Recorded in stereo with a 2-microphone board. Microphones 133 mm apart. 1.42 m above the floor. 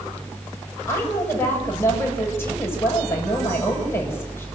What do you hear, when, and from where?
0.9 s a woman speaking: 15° left (ahead or behind), 8.5 m